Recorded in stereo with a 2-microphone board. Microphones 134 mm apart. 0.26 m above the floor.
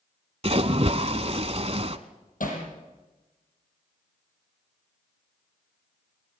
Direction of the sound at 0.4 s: 50° right (ahead or behind).